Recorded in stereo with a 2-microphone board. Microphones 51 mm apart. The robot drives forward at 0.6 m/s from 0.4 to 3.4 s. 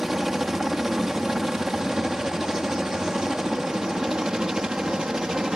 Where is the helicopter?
5° right (ahead or behind); by 5.6 s 15° right (ahead or behind).